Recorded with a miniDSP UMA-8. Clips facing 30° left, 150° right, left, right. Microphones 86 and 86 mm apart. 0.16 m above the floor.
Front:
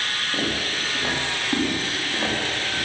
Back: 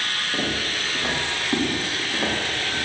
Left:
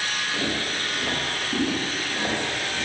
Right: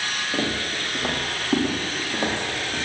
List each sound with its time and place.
0.3 s footsteps: 60° right, 8 m; by 2.9 s 65° right, 9 m